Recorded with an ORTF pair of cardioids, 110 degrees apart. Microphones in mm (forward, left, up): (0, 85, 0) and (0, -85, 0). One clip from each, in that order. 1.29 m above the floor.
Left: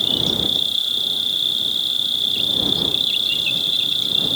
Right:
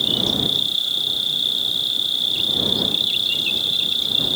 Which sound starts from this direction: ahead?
An insect, at 0.0 s.